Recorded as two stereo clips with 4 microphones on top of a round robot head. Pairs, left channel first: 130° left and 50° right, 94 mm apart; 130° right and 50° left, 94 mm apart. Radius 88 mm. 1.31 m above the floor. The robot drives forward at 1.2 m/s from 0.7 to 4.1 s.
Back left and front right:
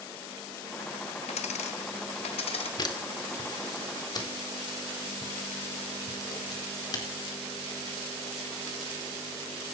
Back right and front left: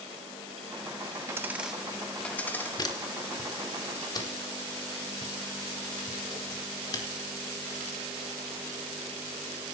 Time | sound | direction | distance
1.3 | a dropped coin | 110° left | 1.0 m
2.8 | a camera shutter | straight behind | 2.5 m